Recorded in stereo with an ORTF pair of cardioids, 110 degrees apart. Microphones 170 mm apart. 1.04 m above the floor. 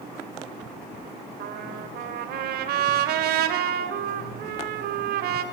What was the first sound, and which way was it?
A trumpet, 70° right.